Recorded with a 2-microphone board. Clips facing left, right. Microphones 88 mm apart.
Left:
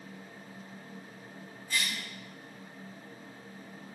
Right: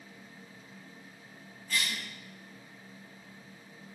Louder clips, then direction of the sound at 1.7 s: Even; 20° left (ahead or behind).